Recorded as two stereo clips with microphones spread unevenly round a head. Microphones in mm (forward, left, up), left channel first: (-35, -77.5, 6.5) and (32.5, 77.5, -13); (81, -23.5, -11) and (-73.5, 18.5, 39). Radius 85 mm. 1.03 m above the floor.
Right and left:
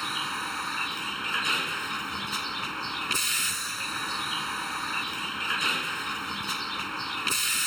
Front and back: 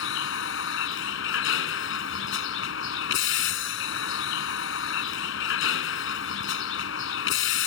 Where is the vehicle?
25° right.